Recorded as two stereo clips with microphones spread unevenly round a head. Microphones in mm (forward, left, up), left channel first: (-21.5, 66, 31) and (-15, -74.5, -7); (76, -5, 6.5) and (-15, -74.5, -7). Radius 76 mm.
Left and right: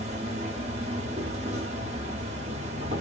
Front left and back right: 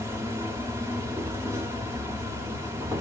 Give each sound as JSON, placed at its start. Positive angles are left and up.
{"t": 0.0, "sound": "an insect", "azimuth_deg": -90, "distance_m": 0.9}